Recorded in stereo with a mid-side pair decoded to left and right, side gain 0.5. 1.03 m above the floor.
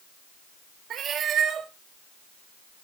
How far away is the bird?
No bird in this recording.